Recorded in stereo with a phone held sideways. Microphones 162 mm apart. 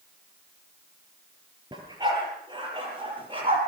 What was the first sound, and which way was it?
A dog barking, 25° right (ahead or behind).